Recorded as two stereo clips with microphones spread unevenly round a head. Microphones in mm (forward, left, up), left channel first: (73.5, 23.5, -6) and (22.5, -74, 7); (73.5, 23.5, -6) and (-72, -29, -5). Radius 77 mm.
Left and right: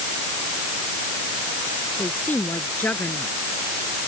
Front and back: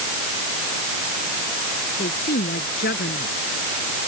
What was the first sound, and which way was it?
A woman speaking, 10° right.